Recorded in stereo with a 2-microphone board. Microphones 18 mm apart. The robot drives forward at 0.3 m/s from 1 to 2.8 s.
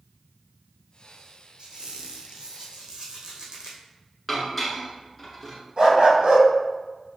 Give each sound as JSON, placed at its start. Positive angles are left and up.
{"t": 1.6, "sound": "a squeak", "side_deg": -55, "distance_m": 1.0}
{"t": 4.3, "sound": "dishes clattering", "side_deg": 5, "distance_m": 1.1}
{"t": 5.8, "sound": "a dog barking", "side_deg": -50, "distance_m": 1.9}